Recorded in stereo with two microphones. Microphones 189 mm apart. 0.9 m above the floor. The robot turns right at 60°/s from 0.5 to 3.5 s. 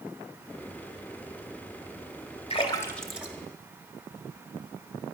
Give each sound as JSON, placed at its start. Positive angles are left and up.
{"t": 2.5, "sound": "a splash", "side_deg": 35, "distance_m": 1.5}